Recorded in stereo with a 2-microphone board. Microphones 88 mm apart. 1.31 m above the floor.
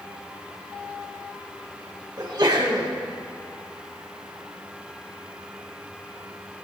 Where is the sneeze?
50° right (ahead or behind), 1.9 m.